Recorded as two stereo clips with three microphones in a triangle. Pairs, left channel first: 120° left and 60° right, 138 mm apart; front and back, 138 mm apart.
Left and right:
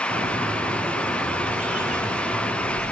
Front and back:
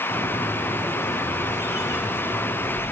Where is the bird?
65° right, 0.9 m.